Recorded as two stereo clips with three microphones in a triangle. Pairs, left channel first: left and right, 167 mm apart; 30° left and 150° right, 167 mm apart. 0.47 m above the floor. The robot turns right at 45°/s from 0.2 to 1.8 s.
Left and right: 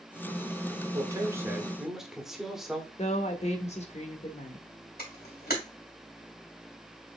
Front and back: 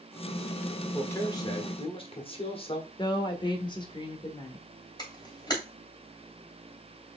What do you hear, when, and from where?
0.9 s a man speaking: 40° right, 1.2 m; by 2.9 s 5° right, 1.2 m
3.0 s a woman speaking: 75° left, 1.2 m
5.0 s a camera shutter: 95° left, 2.5 m